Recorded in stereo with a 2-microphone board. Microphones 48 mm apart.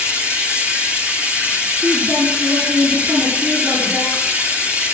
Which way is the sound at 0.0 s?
30° right (ahead or behind).